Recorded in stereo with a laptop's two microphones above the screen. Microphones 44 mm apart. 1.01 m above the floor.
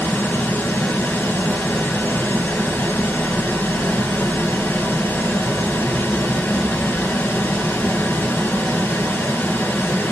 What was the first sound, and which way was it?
Running water, 60° left (ahead or behind).